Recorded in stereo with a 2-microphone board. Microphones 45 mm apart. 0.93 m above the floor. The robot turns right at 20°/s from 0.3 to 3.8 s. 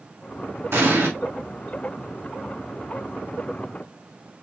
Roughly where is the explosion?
Right.